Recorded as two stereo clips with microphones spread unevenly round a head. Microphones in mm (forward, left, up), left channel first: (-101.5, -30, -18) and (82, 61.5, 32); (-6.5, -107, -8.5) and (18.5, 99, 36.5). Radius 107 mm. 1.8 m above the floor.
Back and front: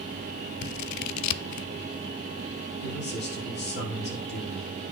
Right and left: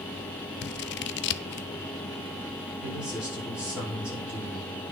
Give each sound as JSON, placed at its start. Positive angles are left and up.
{"t": 0.6, "sound": "scissors", "azimuth_deg": -140, "distance_m": 0.5}
{"t": 2.8, "sound": "a man speaking", "azimuth_deg": 165, "distance_m": 6.0}